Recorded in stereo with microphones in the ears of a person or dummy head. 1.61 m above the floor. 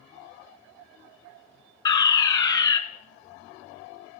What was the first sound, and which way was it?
A fire alarm, 25° left (ahead or behind).